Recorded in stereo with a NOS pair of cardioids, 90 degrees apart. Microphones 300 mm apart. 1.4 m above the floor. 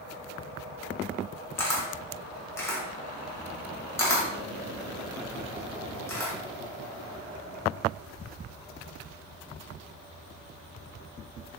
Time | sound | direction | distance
1.6 | a camera shutter | 10° left | 1.6 m